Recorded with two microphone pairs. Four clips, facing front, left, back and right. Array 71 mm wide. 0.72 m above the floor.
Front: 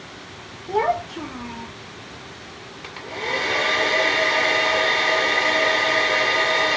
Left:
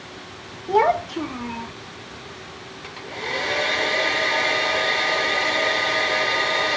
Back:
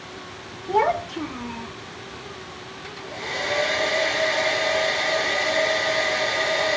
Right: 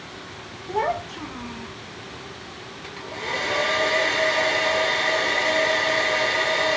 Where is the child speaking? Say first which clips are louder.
Left 6 dB, back 1 dB; 95° left, 0.6 m.